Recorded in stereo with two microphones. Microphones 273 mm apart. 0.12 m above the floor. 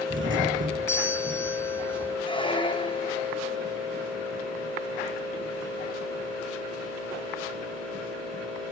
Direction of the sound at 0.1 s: 50° right (ahead or behind).